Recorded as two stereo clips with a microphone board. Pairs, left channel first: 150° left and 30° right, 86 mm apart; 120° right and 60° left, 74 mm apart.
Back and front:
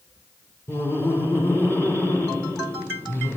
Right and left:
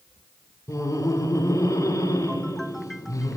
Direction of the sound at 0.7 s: 150° right.